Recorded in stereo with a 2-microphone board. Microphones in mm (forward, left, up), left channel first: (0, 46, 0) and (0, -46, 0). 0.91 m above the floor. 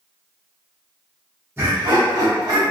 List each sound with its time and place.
1.6 s laughter: 25° right (ahead or behind), 0.9 m; by 2.6 s 45° right (ahead or behind), 1.1 m